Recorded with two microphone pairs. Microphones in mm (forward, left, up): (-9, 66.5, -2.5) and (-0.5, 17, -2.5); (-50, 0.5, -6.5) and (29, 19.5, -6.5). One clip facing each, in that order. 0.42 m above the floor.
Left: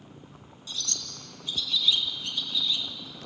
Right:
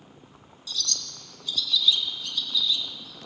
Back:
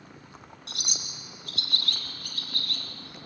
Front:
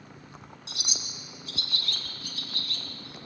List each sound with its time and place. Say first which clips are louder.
0.7 s a bird: right 3 dB, back 1 dB; 155° left, 2.5 m